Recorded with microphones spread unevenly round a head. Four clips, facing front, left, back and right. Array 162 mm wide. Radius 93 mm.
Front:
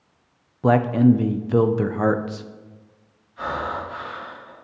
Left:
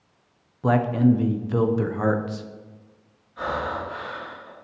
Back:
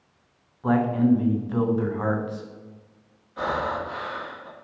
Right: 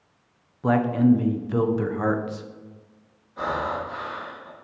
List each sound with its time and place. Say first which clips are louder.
0.6 s a man speaking: even, front 4 dB; straight ahead, 0.6 m
3.4 s breathing: right 1 dB, back 1 dB; 150° right, 2 m